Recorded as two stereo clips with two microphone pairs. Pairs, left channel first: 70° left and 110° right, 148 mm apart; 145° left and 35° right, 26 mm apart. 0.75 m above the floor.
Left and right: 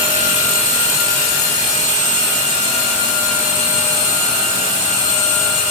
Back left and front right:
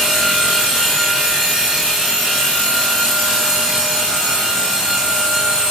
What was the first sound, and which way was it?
Only background noise.